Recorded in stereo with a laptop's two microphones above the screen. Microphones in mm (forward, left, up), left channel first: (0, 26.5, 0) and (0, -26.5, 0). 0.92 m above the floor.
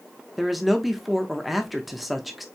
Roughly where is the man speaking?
Centre.